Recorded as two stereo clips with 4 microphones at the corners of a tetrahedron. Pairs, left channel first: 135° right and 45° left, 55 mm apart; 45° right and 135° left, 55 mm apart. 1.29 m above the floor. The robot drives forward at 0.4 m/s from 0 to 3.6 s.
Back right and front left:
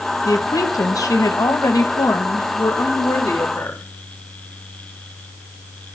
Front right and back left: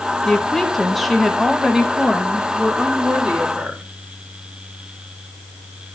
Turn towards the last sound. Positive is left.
turn(degrees=-155)